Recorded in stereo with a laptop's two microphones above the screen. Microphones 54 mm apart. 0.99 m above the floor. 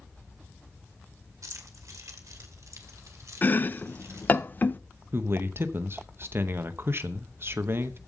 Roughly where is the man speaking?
Right.